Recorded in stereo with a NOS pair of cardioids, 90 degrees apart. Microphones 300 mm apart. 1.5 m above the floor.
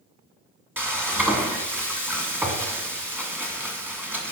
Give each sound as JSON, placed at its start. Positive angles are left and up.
{"t": 0.8, "sound": "frying", "azimuth_deg": -5, "distance_m": 2.0}